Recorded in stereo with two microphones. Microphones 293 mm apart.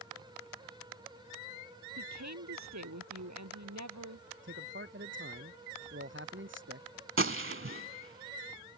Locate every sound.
2.0 s a woman speaking: 65° right (ahead or behind)
4.4 s a man speaking: 40° right (ahead or behind)
7.2 s a gunshot: 45° right (ahead or behind)